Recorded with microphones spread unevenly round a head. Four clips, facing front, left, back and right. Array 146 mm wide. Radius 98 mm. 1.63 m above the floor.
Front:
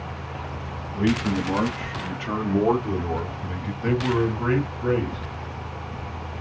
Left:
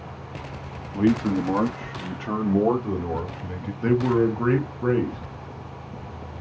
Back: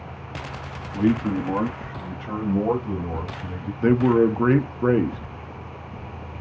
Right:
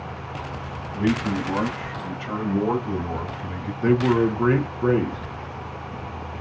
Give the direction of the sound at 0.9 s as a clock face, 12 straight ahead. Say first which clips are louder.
Left 2 dB, back 2 dB; 8 o'clock.